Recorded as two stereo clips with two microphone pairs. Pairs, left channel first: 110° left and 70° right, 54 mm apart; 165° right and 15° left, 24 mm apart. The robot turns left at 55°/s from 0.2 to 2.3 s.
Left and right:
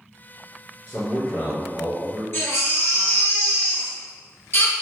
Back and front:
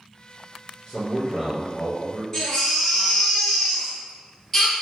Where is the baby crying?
130° left, 1.6 m.